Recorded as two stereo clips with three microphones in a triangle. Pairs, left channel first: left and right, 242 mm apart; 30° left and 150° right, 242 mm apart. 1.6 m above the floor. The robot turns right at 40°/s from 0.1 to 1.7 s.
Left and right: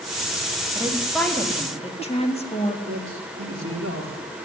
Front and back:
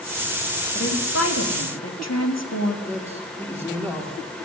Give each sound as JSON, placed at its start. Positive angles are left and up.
{"t": 0.8, "sound": "a woman speaking", "azimuth_deg": -15, "distance_m": 3.5}
{"t": 2.9, "sound": "a man speaking", "azimuth_deg": -50, "distance_m": 4.0}